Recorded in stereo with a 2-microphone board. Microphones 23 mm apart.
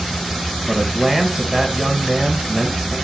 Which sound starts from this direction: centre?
A man speaking, at 0.7 s.